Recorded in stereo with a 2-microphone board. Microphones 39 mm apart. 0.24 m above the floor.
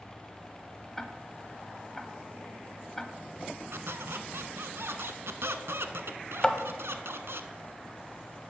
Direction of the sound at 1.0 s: 10° left (ahead or behind).